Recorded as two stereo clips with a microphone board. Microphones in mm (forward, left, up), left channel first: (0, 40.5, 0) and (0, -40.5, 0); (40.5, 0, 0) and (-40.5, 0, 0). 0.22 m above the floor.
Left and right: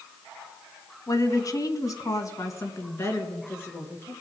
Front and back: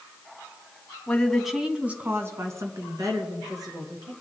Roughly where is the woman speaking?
Left.